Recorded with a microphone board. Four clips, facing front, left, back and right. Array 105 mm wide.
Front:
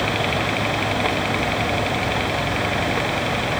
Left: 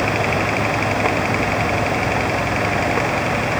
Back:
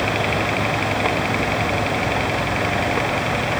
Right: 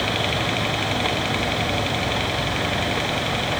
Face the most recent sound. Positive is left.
No sound to turn to.